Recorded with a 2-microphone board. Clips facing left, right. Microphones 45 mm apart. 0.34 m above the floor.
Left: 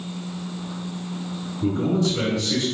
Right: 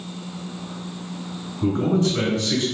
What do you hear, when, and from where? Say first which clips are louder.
1.6 s a man speaking: right 2 dB; 35° right (ahead or behind), 1.9 m